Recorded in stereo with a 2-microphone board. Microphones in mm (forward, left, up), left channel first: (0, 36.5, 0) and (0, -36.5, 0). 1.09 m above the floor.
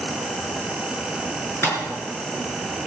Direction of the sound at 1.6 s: 35° left (ahead or behind).